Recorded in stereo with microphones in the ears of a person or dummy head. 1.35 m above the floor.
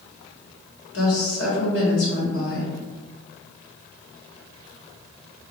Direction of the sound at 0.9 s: 80° left.